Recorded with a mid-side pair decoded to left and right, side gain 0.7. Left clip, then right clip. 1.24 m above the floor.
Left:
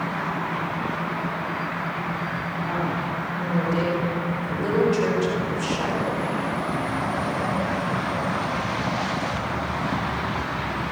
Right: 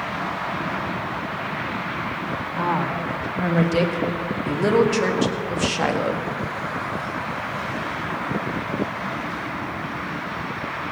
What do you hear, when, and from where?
2.6 s a woman speaking: 55° right, 4.5 m; by 6.3 s 30° right, 1.6 m